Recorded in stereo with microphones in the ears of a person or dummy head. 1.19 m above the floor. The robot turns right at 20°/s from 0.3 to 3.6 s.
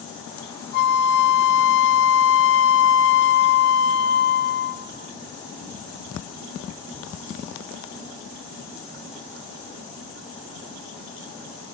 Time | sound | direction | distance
0.7 | a flute | 60° left | 0.6 m